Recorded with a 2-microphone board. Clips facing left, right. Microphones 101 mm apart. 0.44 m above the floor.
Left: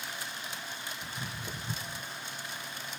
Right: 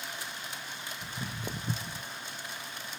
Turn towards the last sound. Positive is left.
turn(degrees=-60)  # may be behind; listen again after turning